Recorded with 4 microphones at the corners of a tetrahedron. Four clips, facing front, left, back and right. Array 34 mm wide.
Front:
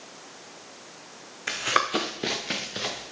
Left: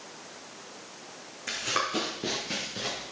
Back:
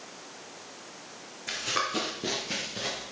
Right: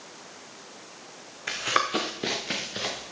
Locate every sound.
1.5 s running footsteps: 25° right, 1.6 m; by 3.0 s 40° right, 3.5 m